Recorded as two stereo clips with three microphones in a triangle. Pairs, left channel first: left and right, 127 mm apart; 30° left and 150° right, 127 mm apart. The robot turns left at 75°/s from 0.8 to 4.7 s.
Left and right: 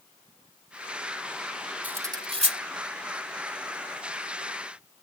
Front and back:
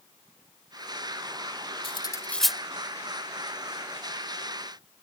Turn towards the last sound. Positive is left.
turn(degrees=135)